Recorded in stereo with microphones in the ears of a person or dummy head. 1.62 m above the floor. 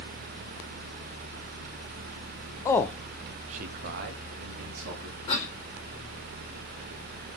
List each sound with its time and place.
2.6 s a man speaking: 20° left (ahead or behind), 0.6 m; by 5.2 s 85° right, 1.4 m
5.3 s a cough: 35° left (ahead or behind), 2.0 m